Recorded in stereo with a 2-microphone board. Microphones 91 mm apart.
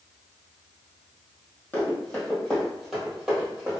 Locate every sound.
1.7 s running footsteps: 20° left (ahead or behind), 1.8 m; by 3.8 s 15° right (ahead or behind), 1.7 m